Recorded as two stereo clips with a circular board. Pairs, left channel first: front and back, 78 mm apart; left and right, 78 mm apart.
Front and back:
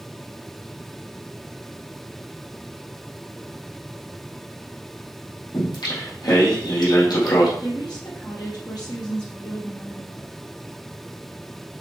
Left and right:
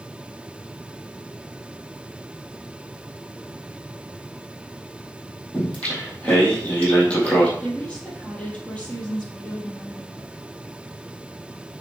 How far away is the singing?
About 4 m.